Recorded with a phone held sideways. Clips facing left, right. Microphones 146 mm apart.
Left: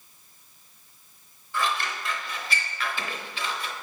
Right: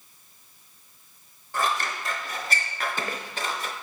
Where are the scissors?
45° right (ahead or behind), 0.6 m.